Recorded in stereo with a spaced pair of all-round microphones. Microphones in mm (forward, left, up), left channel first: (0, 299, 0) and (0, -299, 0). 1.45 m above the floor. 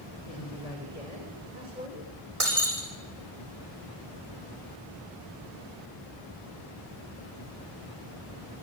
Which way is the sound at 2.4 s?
65° right (ahead or behind).